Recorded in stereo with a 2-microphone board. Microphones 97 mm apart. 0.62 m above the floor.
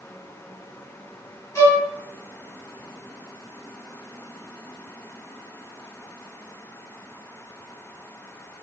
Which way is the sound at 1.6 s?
35° left (ahead or behind).